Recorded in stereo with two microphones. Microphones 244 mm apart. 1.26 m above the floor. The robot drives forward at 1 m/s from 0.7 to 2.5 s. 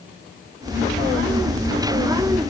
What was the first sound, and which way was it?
Only background noise.